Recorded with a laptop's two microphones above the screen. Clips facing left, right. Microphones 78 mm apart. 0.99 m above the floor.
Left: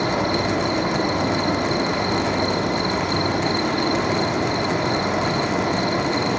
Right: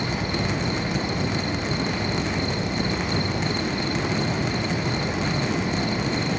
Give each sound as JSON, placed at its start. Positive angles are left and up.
{"t": 0.0, "sound": "an insect", "side_deg": 70, "distance_m": 1.7}